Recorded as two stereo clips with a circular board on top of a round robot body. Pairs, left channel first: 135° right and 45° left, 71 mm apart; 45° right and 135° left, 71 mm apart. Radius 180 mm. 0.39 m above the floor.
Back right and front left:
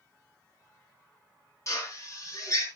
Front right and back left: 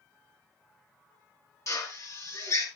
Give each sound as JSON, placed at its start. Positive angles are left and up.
{"t": 1.7, "sound": "a drill", "azimuth_deg": -90, "distance_m": 5.5}